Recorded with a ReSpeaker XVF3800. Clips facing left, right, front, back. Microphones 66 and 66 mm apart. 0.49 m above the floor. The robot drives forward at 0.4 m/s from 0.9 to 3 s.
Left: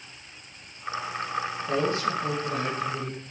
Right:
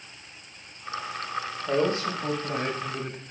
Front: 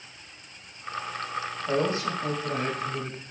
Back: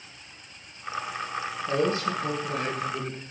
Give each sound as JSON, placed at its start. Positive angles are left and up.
{"t": 1.7, "sound": "a man speaking", "azimuth_deg": -45, "distance_m": 1.0}